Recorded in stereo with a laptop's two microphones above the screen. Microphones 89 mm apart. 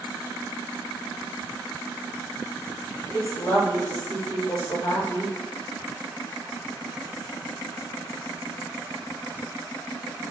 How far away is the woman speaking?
About 0.9 m.